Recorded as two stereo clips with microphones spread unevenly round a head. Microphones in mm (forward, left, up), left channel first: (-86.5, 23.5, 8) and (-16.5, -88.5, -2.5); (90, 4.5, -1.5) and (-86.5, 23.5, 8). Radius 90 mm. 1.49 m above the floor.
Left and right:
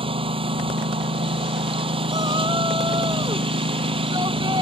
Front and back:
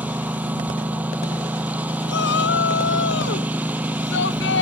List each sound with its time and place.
0.0 s a lawn mower: 105° right
2.1 s a shout: 15° left